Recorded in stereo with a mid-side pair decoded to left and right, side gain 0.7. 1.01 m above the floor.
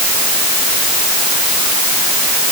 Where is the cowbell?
I don't hear a cowbell.